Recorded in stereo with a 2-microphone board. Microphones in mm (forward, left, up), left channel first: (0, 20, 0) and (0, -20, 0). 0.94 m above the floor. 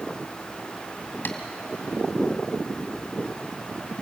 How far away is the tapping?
About 1.6 m.